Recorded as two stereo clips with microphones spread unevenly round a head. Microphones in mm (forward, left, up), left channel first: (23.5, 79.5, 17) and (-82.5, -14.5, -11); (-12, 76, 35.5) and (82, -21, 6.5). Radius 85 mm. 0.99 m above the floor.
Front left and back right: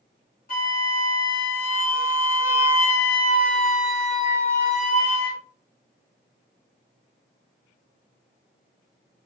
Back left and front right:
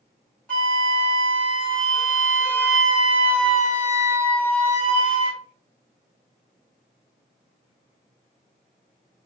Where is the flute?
55° left, 3 m.